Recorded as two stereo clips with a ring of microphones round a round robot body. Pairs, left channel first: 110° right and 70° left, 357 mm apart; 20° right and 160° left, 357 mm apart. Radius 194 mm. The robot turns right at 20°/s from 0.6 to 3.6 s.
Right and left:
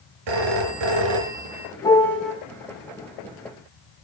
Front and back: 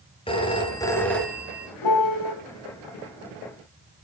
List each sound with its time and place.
0.3 s a phone ringing: 55° left, 4 m; by 1.7 s 75° left, 4 m
1.8 s a piano: 35° right, 5 m; by 2.3 s 25° right, 5 m